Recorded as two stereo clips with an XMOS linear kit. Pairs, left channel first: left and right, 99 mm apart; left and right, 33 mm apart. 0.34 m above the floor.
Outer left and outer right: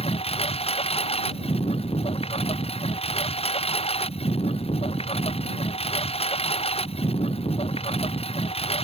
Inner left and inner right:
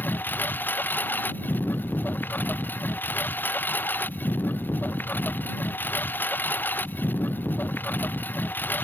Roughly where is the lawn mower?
Left.